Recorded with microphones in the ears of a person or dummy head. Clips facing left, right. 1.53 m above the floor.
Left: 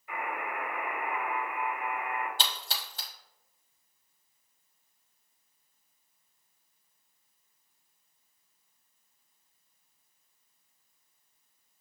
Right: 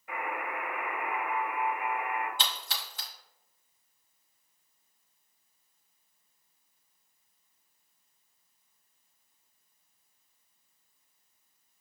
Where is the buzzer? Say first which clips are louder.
Even; 45° right (ahead or behind), 0.9 m.